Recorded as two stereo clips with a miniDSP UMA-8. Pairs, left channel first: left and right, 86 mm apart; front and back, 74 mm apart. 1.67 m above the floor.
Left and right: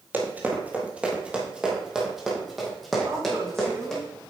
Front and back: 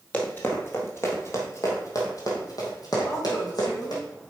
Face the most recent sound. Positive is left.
turn(degrees=-30)